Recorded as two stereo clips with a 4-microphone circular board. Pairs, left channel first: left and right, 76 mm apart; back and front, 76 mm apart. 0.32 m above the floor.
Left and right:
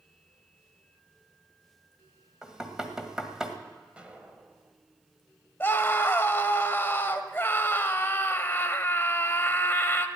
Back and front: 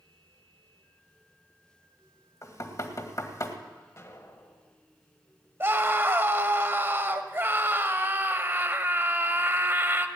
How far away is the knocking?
About 1.6 m.